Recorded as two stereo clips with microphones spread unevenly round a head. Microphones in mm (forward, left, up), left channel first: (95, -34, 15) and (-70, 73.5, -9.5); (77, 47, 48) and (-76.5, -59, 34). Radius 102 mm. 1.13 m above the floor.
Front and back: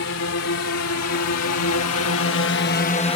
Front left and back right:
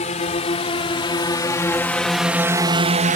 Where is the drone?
20° right; by 3.2 s 100° right.